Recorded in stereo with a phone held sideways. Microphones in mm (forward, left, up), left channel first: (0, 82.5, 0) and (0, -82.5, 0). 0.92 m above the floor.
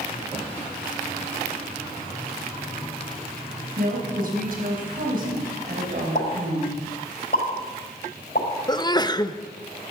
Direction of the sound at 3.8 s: 60° right (ahead or behind).